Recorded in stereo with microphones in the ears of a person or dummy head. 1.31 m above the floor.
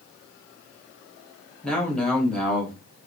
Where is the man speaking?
Centre (ahead or behind), 1.4 m.